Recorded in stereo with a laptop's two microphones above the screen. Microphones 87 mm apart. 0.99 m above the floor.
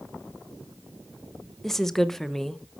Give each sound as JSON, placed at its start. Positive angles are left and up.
{"t": 1.6, "sound": "a woman speaking", "side_deg": 5, "distance_m": 0.7}